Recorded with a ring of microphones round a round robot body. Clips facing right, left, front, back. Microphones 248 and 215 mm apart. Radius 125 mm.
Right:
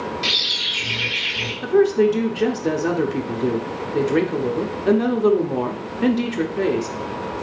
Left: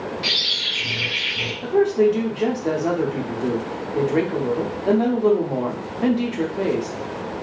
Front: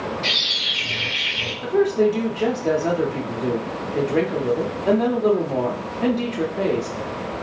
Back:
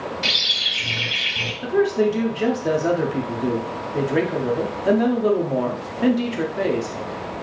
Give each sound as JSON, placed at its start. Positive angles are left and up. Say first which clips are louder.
{"t": 0.2, "sound": "a bird", "louder": "right 1 dB, front 1 dB", "azimuth_deg": -155, "distance_m": 1.7}
{"t": 1.6, "sound": "a woman speaking", "louder": "right 1 dB, front 1 dB", "azimuth_deg": -115, "distance_m": 0.6}